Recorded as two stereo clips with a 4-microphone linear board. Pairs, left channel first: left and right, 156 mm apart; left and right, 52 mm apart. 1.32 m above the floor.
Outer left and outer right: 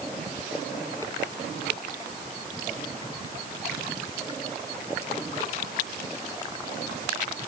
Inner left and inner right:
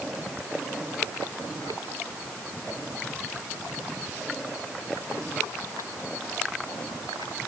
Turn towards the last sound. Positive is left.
No sound to turn to.